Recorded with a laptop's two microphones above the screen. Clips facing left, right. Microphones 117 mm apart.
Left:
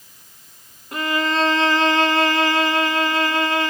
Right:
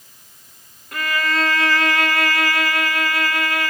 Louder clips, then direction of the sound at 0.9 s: Left 2 dB; 25° left (ahead or behind).